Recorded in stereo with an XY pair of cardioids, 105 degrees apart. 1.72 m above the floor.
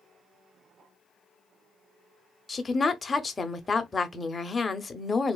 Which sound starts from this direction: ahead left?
A woman speaking, at 2.5 s.